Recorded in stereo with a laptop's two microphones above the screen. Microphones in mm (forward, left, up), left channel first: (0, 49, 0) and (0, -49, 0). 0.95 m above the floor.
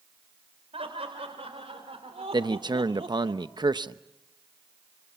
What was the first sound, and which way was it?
Laughter, 80° right.